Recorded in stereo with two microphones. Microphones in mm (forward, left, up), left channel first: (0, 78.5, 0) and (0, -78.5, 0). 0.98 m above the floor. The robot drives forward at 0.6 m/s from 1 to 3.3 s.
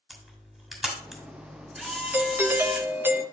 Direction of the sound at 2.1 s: 10° right (ahead or behind).